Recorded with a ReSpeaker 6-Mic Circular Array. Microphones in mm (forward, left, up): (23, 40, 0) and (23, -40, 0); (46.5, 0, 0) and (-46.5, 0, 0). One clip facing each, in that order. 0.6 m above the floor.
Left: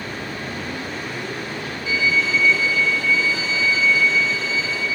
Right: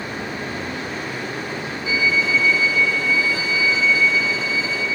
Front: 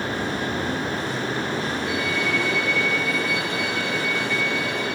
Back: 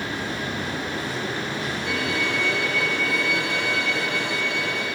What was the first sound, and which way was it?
A violin, 160° right.